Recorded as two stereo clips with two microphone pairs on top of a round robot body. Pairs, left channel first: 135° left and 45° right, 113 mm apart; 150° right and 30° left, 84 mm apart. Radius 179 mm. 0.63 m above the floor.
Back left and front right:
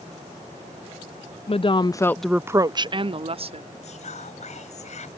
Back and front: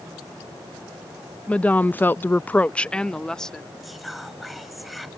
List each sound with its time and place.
1.5 s a woman speaking: 135° left; by 3.7 s 65° right
3.8 s whispering: 120° left